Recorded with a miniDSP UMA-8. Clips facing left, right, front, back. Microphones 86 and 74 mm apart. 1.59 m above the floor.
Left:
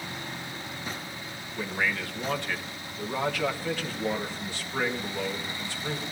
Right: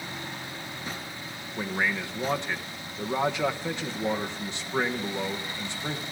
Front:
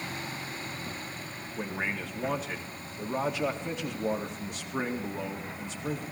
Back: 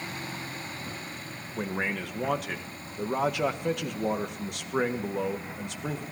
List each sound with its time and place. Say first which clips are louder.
1.6 s a man speaking: right 1 dB, back 3 dB; 160° right, 1.7 m